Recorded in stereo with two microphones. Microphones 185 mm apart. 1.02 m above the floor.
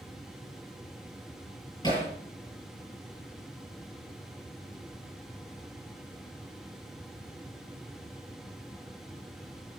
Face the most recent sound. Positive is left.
turn(degrees=20)  # may be behind; listen again after turning